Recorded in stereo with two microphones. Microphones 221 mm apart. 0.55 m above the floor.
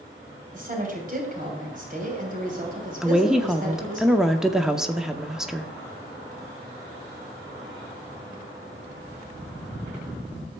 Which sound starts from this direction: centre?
A woman speaking, at 3.0 s.